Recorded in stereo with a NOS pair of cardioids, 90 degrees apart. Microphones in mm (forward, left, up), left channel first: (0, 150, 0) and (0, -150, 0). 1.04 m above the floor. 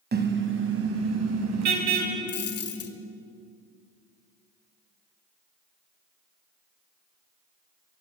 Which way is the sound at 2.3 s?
55° left.